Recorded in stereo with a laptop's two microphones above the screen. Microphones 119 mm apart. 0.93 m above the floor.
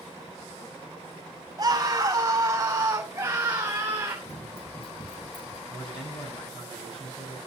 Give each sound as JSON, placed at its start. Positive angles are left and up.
{"t": 1.6, "sound": "a scream", "side_deg": -30, "distance_m": 4.5}
{"t": 4.2, "sound": "running footsteps", "side_deg": 55, "distance_m": 1.8}
{"t": 5.7, "sound": "a man speaking", "side_deg": 45, "distance_m": 5.0}